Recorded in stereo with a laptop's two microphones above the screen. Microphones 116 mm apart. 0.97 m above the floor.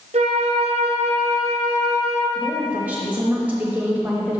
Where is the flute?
65° right (ahead or behind), 0.8 m.